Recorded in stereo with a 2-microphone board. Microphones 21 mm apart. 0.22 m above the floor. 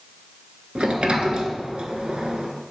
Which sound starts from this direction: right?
A sliding door, at 0.8 s.